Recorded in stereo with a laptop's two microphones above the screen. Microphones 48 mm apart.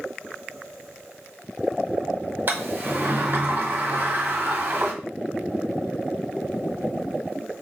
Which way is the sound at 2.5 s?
45° right (ahead or behind).